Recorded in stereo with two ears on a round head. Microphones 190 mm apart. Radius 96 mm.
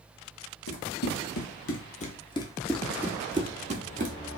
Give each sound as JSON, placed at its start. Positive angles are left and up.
{"t": 0.7, "sound": "running footsteps", "side_deg": 50, "distance_m": 1.3}